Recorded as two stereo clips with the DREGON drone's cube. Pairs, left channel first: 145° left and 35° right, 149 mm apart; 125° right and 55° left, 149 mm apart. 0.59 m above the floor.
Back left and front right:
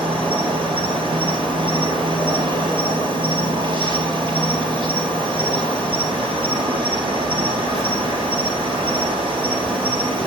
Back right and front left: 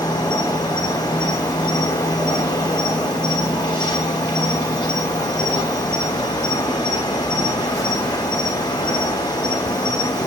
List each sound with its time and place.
0.0 s an insect: 75° right, 2.5 m